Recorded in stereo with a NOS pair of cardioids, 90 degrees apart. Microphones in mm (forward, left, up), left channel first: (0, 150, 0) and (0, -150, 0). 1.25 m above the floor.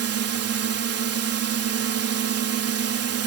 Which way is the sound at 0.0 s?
55° right.